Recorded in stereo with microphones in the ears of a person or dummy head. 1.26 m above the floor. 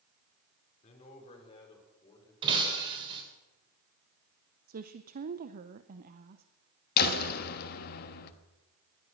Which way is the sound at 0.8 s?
40° left (ahead or behind).